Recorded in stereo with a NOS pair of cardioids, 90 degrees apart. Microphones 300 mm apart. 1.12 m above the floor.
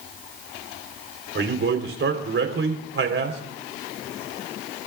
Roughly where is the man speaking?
Ahead right.